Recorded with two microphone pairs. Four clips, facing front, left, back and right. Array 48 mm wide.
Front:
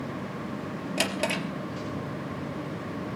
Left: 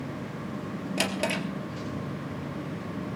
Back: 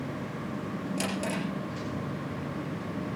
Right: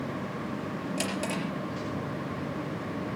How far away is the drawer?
About 3.5 m.